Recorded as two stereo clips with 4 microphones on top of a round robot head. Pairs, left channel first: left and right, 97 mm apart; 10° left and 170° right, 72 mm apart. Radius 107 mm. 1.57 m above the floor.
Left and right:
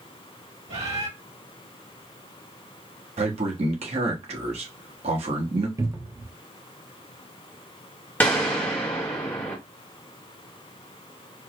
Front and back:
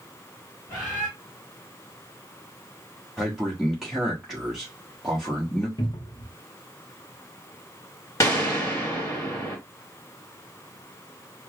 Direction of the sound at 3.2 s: 85° right.